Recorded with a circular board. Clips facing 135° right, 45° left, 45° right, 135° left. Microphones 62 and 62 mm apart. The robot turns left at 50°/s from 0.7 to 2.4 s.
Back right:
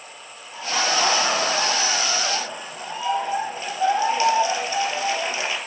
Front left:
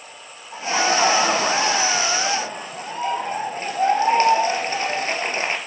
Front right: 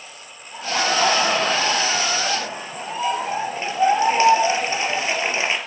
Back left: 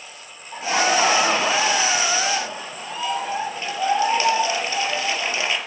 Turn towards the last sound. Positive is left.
turn(degrees=10)